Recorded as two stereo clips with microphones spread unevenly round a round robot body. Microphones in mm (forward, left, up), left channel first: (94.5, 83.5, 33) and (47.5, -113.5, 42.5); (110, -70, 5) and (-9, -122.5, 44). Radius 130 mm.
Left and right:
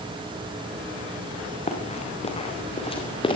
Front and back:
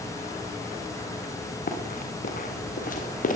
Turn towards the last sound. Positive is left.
turn(degrees=10)